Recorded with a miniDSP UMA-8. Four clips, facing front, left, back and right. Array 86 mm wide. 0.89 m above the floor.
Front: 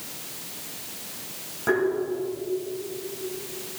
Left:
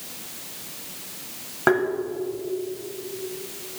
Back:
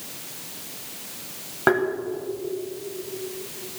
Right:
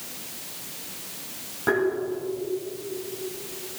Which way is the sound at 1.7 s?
135° left.